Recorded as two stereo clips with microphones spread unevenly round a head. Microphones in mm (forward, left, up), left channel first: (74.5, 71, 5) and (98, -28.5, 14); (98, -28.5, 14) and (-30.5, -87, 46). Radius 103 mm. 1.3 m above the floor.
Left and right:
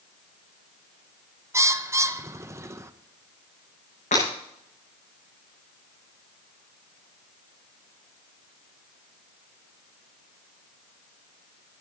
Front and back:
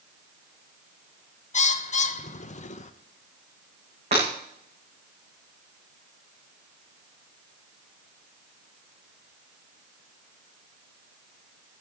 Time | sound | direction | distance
1.5 | a bird | 15° right | 1.1 m
4.1 | breaking glass | 145° left | 8 m